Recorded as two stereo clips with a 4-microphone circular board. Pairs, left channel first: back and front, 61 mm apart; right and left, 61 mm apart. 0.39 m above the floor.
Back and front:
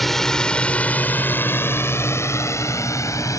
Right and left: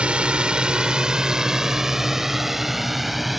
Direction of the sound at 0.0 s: 100° left.